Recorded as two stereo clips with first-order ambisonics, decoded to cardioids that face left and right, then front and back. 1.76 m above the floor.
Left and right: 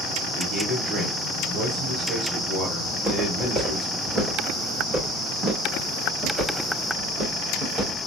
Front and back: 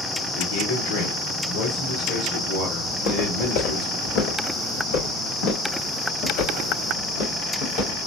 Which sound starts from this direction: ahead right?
A man speaking, at 0.3 s.